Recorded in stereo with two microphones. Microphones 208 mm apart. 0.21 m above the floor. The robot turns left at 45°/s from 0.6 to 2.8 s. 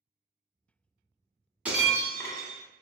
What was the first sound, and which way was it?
Breaking glass, 170° right.